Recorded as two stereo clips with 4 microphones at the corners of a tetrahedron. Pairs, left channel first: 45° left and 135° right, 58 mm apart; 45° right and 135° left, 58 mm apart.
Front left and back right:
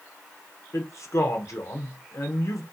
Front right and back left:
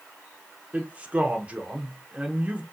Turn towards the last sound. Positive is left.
turn(degrees=70)